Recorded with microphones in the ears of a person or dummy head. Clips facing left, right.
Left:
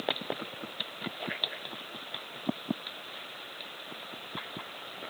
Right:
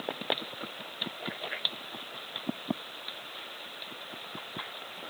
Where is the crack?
No crack in this recording.